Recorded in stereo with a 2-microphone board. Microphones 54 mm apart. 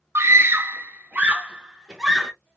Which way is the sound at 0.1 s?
55° right (ahead or behind).